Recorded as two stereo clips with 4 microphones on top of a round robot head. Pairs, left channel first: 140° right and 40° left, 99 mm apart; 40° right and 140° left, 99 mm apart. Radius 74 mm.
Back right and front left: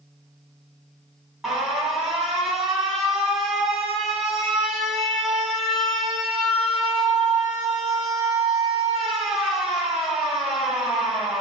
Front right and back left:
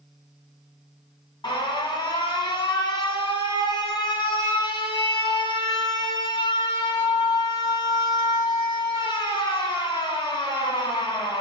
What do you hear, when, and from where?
1.4 s an alarm: 40° right, 1.6 m